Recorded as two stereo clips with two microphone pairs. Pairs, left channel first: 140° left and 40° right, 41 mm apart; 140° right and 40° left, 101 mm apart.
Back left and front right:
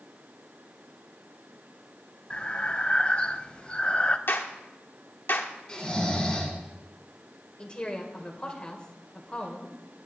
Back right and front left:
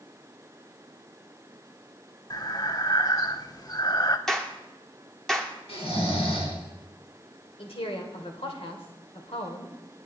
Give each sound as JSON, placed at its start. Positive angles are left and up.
{"t": 2.3, "sound": "breathing", "azimuth_deg": -165, "distance_m": 0.6}
{"t": 4.3, "sound": "a clap", "azimuth_deg": 140, "distance_m": 1.3}
{"t": 5.7, "sound": "snoring", "azimuth_deg": -150, "distance_m": 4.5}
{"t": 7.6, "sound": "a woman speaking", "azimuth_deg": -155, "distance_m": 2.5}